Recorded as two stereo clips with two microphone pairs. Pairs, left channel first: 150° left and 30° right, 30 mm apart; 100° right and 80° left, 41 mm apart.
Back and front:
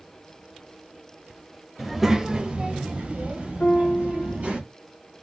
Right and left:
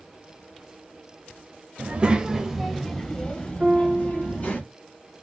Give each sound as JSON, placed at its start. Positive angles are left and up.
{"t": 1.8, "sound": "a child speaking", "azimuth_deg": 55, "distance_m": 0.6}
{"t": 3.6, "sound": "a piano", "azimuth_deg": 140, "distance_m": 0.7}